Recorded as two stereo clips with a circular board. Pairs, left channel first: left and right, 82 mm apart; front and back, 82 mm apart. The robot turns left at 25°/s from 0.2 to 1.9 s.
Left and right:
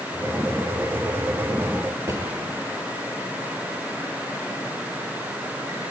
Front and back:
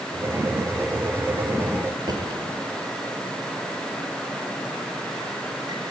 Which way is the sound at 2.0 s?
145° right.